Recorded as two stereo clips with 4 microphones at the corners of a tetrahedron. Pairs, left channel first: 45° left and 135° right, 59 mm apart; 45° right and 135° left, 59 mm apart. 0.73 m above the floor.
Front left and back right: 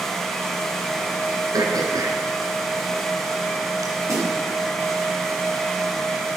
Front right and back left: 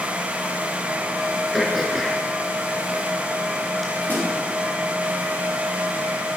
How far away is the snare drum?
About 5.5 m.